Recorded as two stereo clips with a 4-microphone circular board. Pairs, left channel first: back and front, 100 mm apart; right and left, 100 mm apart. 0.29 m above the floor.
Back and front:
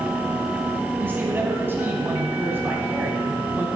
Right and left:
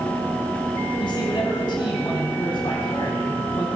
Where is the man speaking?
65° right, 1.8 m.